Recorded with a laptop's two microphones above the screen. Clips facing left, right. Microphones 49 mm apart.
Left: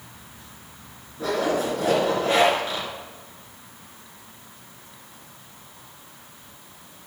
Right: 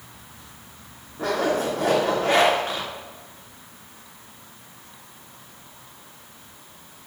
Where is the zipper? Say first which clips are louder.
Right 1 dB; 55° right (ahead or behind), 2.0 m.